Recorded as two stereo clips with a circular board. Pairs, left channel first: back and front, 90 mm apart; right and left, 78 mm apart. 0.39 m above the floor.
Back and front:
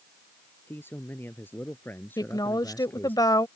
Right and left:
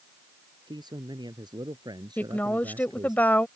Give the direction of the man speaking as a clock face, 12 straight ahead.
8 o'clock.